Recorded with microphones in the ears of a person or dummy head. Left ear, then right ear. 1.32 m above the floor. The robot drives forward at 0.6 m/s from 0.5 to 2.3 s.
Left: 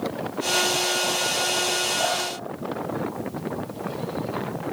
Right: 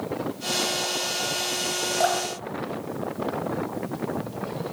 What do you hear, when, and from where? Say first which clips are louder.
2.0 s dripping: right 1 dB; 60° right (ahead or behind), 2.5 m